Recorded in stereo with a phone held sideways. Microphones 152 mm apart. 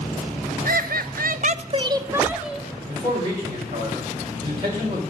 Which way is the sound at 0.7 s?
70° right (ahead or behind).